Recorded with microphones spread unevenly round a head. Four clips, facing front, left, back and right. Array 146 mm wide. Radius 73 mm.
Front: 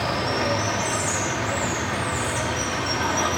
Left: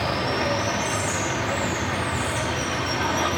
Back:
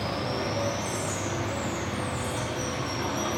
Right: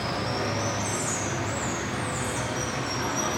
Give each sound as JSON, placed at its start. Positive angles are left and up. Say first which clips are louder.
{"t": 0.0, "sound": "running water", "louder": "left 4 dB, front 6 dB", "azimuth_deg": 50, "distance_m": 1.4}